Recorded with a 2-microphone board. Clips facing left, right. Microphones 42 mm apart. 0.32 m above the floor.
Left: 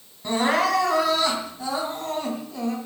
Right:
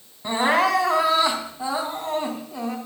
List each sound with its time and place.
0.2 s crying: 20° right (ahead or behind), 3 m